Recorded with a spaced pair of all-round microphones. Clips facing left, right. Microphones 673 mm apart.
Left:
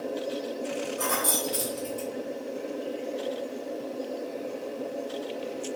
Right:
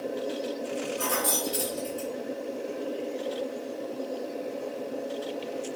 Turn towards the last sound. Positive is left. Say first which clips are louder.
# even
turn(degrees=30)  # may be behind; listen again after turning